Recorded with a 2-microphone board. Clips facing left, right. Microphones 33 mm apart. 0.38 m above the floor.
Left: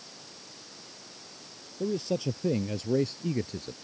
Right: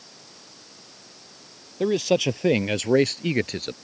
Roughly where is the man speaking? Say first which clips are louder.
Right 9 dB; right.